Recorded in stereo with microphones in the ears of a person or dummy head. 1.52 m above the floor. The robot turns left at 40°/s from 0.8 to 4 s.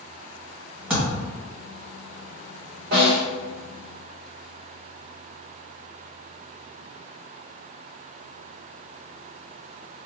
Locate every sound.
0.9 s a thud: 5° right (ahead or behind), 1.7 m; by 1.3 s 15° right (ahead or behind), 1.7 m
2.9 s a snare drum: 45° right (ahead or behind), 1.4 m; by 3.2 s 40° right (ahead or behind), 1.4 m